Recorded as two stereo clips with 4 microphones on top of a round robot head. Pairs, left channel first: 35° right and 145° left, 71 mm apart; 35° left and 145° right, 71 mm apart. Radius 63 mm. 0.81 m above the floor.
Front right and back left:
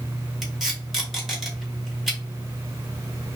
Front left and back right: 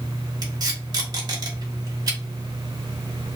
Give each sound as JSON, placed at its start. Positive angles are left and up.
{"t": 0.4, "sound": "tape being pulled", "azimuth_deg": -130, "distance_m": 2.5}